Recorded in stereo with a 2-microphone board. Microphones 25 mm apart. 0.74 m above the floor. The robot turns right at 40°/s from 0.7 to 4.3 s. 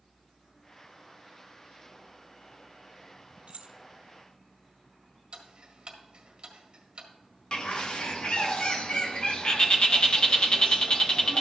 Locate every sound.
3.5 s keys jangling: 50° right (ahead or behind), 0.7 m; by 3.7 s 45° right (ahead or behind), 0.7 m
5.3 s ticking: 40° right (ahead or behind), 1.8 m
7.5 s a bird: 50° left (ahead or behind), 1.1 m